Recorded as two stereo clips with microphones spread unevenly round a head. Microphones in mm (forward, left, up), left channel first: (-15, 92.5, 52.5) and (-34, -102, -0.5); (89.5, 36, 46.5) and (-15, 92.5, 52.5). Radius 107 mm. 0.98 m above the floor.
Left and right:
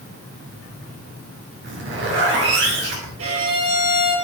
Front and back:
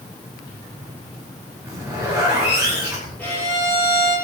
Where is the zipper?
125° right, 6.5 m.